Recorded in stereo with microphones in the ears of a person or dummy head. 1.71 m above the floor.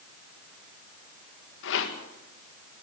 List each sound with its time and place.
1.6 s a rattle: 75° left (ahead or behind), 1.9 m